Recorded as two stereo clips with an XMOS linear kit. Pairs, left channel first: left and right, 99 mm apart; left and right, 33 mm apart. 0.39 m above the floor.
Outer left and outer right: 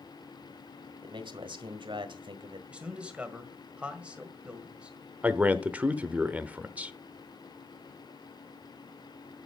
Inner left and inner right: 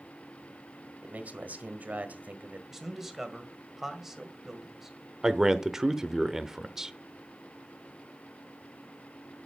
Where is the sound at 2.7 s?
10° right (ahead or behind), 1.7 m.